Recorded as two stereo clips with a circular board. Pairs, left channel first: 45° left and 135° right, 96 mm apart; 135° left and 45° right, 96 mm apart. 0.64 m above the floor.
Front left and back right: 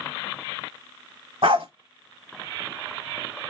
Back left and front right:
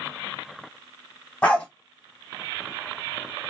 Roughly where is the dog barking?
Behind right.